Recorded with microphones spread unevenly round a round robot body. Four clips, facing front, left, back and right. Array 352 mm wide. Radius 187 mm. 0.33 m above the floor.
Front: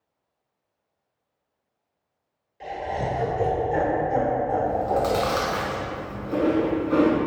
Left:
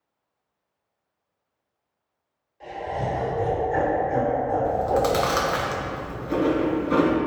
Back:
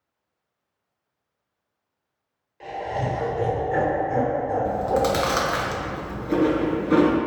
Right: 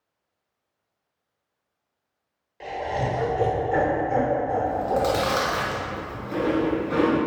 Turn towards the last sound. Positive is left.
turn(degrees=155)